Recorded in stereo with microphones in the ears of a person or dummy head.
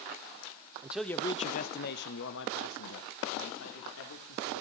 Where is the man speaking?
15° right (ahead or behind), 0.5 m; by 4.6 s 85° left, 3 m.